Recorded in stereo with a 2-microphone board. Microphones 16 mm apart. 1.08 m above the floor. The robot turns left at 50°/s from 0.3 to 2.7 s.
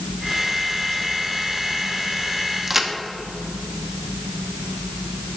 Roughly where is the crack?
Right.